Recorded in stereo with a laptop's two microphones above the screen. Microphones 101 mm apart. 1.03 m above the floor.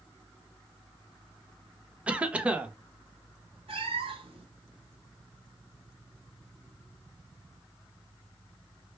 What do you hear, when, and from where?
2.1 s a cough: 15° right (ahead or behind), 0.5 m
3.7 s a cat meowing: 65° right (ahead or behind), 1.5 m